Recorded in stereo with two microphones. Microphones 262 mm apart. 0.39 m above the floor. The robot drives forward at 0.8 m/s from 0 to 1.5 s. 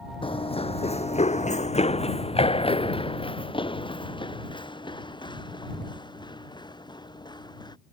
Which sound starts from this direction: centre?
Running footsteps, at 0.2 s.